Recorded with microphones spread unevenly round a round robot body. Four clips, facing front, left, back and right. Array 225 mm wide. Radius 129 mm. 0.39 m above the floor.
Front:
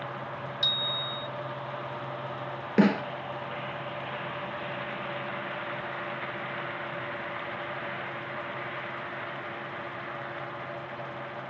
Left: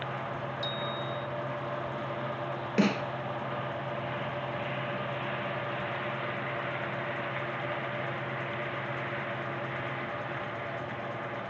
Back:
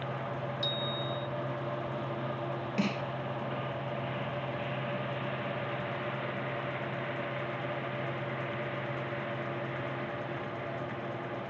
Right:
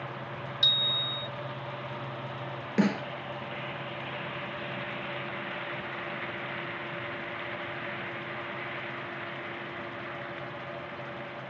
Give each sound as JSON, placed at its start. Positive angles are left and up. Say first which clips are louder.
{"t": 0.6, "sound": "a bicycle bell", "louder": "left 4 dB, back 1 dB", "azimuth_deg": -65}
{"t": 2.8, "sound": "a snare drum", "louder": "even, front 11 dB", "azimuth_deg": 5}